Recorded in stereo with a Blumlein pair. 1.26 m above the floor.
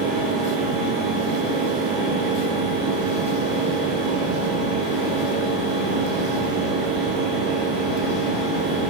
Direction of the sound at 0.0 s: 35° right.